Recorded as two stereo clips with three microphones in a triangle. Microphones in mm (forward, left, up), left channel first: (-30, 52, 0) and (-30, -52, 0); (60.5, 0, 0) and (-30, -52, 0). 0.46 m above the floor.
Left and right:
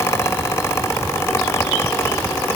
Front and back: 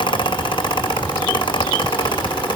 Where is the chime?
I don't hear a chime.